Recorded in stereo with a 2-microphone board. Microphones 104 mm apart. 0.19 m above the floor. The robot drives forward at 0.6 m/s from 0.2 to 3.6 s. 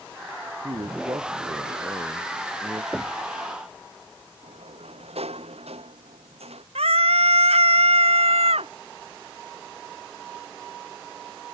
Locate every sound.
0.6 s a man speaking: 45° right (ahead or behind); by 2.8 s 40° right (ahead or behind)
2.9 s knocking: 10° right (ahead or behind)
4.4 s a sliding door: 90° right
6.8 s a scream: 80° right